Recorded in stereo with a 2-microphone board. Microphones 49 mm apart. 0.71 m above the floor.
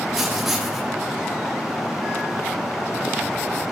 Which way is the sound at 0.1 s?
5° right (ahead or behind).